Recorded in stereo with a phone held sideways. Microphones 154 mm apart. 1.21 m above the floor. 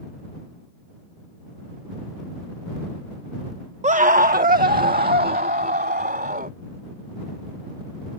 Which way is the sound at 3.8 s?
50° right (ahead or behind).